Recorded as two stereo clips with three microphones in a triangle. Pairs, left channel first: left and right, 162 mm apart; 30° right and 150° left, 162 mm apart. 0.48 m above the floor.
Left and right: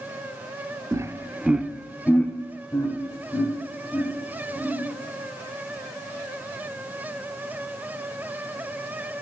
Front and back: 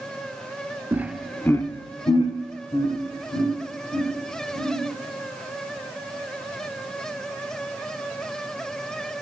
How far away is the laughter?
About 0.9 m.